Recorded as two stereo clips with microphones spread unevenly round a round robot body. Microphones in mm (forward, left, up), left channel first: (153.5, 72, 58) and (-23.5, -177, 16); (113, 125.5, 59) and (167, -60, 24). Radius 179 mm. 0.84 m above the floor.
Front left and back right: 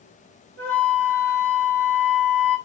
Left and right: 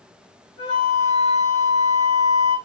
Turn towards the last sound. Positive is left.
turn(degrees=150)